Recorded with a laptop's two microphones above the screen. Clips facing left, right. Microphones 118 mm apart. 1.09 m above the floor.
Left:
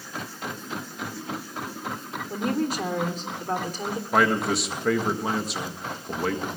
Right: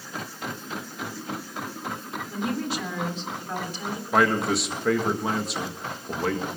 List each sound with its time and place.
2.3 s a woman speaking: 45° left (ahead or behind), 3.5 m
4.1 s a man speaking: centre (ahead or behind), 1.5 m